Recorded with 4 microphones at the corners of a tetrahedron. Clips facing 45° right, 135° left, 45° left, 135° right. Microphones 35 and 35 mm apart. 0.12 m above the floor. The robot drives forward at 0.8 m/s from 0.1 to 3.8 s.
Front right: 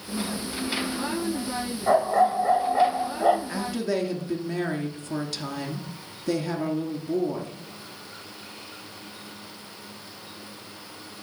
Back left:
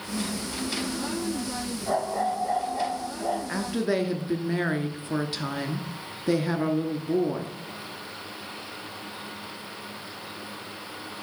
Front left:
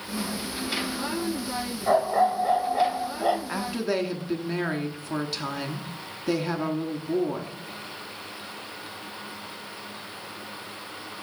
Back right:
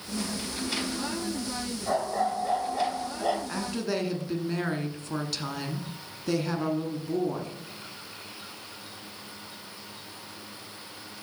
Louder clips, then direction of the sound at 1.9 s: Front right 7 dB, front left 6 dB; 15° right.